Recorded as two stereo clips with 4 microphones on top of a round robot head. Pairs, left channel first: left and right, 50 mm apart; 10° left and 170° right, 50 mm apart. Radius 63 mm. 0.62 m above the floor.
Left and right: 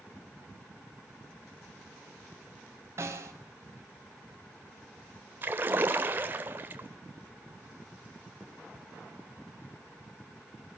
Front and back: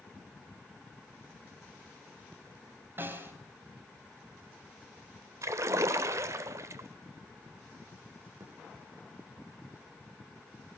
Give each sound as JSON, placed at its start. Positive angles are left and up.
{"t": 3.0, "sound": "a snare drum", "azimuth_deg": -125, "distance_m": 4.0}
{"t": 5.4, "sound": "a splash", "azimuth_deg": -145, "distance_m": 1.3}
{"t": 8.4, "sound": "a thud", "azimuth_deg": 170, "distance_m": 6.0}